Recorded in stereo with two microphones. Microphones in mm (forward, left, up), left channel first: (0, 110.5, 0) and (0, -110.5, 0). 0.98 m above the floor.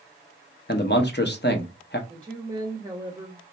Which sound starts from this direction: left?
A man speaking, at 0.7 s.